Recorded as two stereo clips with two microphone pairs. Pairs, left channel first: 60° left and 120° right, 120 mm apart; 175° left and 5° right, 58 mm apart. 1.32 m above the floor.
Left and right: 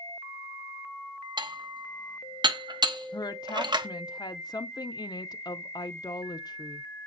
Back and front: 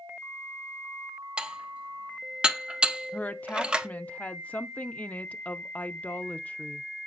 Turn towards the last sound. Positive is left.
turn(degrees=115)